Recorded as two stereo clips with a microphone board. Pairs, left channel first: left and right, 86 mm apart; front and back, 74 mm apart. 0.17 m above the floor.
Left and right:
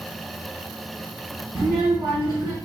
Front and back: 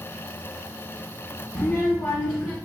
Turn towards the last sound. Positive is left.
turn(degrees=-50)